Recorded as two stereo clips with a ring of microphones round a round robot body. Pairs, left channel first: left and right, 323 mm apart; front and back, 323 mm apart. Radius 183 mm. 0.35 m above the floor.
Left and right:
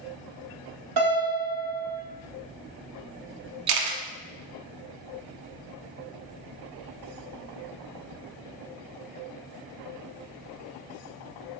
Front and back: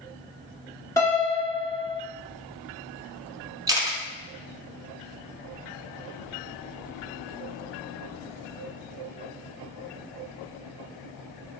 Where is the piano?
80° right, 1.1 m.